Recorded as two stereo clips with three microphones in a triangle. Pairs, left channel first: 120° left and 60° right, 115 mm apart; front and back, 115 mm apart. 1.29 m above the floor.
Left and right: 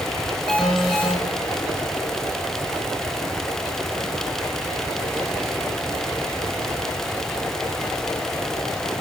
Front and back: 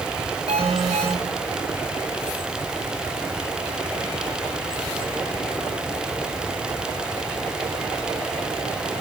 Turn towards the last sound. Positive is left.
turn(degrees=-155)